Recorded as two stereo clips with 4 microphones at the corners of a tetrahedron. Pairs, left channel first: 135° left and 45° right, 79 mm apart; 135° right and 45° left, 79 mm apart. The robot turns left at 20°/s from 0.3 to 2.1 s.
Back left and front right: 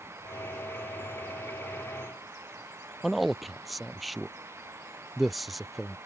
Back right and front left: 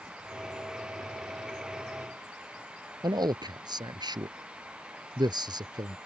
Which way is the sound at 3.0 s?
45° left.